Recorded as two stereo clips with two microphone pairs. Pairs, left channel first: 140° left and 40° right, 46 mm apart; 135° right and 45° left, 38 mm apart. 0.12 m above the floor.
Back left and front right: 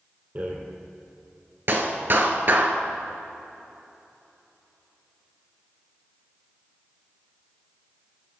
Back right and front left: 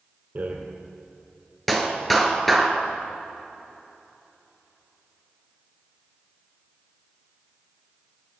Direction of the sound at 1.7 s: 45° right.